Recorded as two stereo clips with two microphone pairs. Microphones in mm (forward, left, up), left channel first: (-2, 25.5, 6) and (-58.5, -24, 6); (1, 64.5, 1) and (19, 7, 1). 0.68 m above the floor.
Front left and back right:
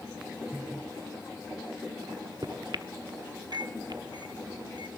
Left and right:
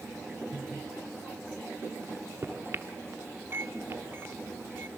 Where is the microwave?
120° right, 1.0 m.